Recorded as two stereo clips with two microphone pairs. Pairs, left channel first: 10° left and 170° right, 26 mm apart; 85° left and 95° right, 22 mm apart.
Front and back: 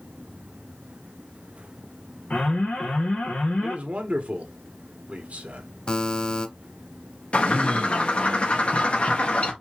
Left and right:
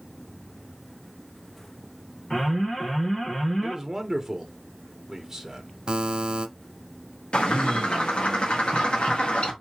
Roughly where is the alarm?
Ahead.